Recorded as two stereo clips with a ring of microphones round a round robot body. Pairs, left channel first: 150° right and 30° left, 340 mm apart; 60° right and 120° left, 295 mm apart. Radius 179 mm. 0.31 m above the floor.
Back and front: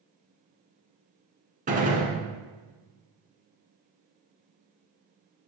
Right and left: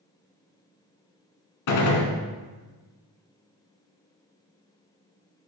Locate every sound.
1.7 s a gunshot: 40° right, 1.3 m